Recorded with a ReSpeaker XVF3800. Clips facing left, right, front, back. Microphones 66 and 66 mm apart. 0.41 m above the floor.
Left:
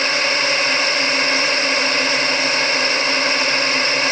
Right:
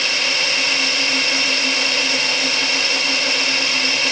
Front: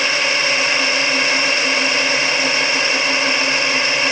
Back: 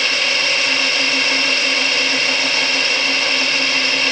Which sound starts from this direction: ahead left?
A drone, at 0.0 s.